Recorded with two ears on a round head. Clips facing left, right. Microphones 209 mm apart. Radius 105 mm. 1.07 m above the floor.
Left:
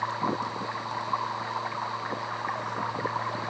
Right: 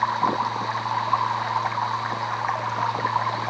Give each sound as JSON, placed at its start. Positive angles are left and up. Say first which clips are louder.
{"t": 0.0, "sound": "running water", "louder": "right 4 dB", "side_deg": -60}